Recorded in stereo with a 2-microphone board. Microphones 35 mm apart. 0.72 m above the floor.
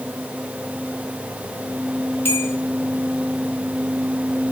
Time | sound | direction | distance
2.2 | a bell | 70° left (ahead or behind) | 3.5 m